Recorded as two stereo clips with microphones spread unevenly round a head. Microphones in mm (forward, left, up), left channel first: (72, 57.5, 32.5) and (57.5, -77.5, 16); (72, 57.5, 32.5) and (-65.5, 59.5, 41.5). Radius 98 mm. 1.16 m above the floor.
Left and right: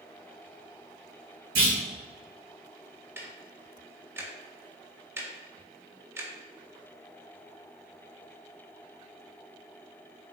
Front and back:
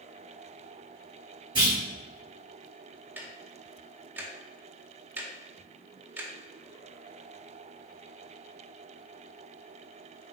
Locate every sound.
1.6 s a clunk: 115° right, 1.7 m
3.2 s ticking: 115° right, 0.6 m